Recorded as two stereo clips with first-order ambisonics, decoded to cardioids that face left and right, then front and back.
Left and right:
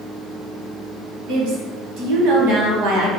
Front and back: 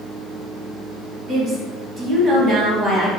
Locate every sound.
1.3 s a woman speaking: 115° right, 1.2 m